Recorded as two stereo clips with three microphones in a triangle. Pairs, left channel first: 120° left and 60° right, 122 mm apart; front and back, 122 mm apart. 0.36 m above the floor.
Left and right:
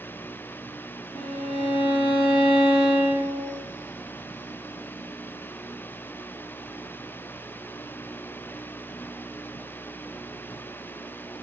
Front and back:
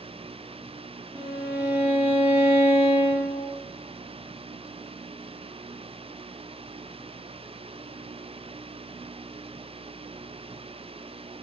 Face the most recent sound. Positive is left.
turn(degrees=110)